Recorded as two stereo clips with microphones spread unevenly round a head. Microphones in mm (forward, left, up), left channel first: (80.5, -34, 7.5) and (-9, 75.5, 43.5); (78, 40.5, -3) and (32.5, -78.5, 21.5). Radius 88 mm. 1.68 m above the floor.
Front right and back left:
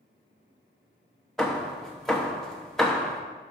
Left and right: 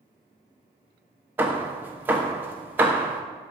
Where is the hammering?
160° right, 0.6 m.